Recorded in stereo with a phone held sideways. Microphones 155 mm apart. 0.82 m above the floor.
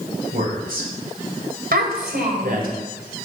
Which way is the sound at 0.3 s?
75° right (ahead or behind).